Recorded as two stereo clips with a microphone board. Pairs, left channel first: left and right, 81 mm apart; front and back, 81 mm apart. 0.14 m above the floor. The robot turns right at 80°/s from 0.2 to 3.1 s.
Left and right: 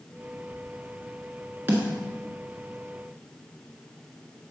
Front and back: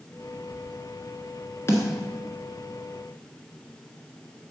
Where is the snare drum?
40° right, 1.5 m; by 1.9 s 25° right, 1.5 m.